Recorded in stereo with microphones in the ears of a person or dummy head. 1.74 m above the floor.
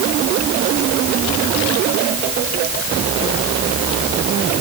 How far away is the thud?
I don't hear a thud.